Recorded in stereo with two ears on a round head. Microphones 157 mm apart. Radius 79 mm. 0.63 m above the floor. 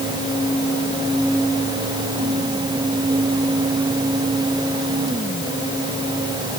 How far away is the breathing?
No breathing in this recording.